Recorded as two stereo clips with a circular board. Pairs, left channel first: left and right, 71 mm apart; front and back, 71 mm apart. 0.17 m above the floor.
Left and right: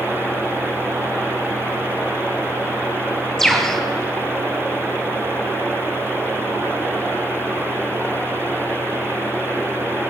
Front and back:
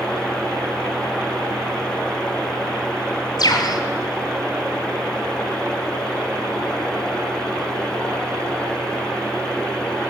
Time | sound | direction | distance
3.4 | a bird | 5° left | 1.6 m